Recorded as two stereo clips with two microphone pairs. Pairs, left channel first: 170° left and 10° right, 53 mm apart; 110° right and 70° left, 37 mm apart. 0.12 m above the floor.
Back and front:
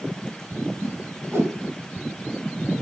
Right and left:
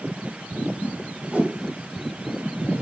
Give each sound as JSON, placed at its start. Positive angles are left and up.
{"t": 0.8, "sound": "a whoosh", "azimuth_deg": 20, "distance_m": 1.4}